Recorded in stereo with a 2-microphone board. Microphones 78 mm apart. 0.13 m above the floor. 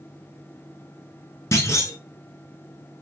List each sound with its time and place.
1.5 s a clunk: 40° left (ahead or behind), 0.8 m